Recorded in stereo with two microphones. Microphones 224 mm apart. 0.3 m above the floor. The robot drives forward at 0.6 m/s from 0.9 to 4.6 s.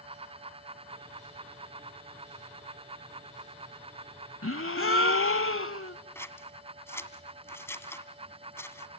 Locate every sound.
4.4 s a gasp: 80° left, 0.7 m
6.2 s scissors: 10° left (ahead or behind), 1.3 m